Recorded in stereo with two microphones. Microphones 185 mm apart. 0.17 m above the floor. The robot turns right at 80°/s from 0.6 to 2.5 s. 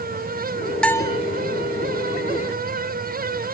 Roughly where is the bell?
Centre.